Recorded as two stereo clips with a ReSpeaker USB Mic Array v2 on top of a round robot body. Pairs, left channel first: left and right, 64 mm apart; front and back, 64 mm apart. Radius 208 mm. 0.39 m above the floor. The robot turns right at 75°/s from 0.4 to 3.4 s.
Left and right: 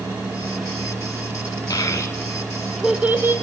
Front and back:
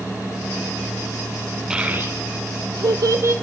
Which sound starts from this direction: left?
A child speaking, at 1.7 s.